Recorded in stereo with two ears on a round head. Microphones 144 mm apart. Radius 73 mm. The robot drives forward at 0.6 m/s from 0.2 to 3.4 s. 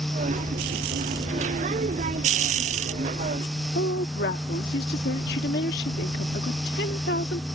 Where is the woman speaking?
65° left (ahead or behind).